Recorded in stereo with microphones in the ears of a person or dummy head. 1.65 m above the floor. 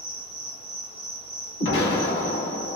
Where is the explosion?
55° left (ahead or behind), 1.2 m.